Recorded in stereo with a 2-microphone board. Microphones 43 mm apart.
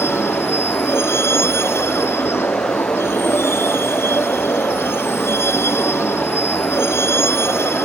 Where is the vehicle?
80° left.